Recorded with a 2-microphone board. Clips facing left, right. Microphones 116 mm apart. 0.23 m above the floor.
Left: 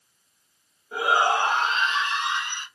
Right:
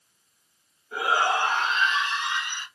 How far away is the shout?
About 1.5 m.